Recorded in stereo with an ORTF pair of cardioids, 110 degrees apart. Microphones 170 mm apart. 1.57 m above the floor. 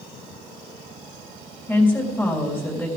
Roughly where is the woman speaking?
Ahead.